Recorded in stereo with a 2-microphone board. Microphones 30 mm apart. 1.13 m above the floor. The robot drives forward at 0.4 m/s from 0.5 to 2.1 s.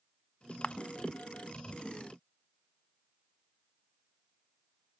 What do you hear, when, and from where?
0.6 s a camera shutter: 35° left (ahead or behind), 0.6 m